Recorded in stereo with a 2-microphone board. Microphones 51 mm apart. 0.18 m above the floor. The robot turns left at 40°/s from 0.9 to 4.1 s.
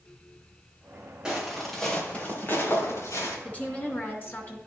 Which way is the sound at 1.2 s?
15° right (ahead or behind).